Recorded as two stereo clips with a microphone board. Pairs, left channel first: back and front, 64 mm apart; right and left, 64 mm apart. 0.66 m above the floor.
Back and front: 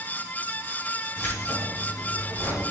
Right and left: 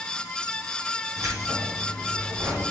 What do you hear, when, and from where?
1.2 s keys jangling: 130° left, 4 m